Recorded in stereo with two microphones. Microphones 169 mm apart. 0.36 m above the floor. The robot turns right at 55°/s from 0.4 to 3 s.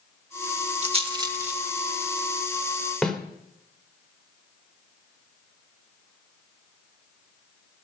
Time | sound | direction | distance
0.8 | a rattle | 40° right (ahead or behind) | 1.1 m
3.0 | a snare drum | 5° left (ahead or behind) | 1.5 m